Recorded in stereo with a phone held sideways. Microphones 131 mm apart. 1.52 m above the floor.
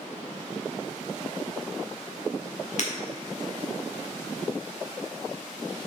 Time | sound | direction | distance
2.8 | breaking glass | 55° left (ahead or behind) | 1.7 m